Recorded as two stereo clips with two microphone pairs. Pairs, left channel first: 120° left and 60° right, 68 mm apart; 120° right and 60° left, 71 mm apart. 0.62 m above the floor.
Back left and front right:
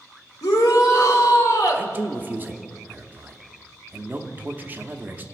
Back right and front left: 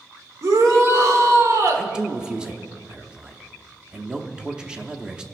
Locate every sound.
0.4 s a shout: 105° left, 1.6 m
1.7 s a man speaking: 10° right, 0.8 m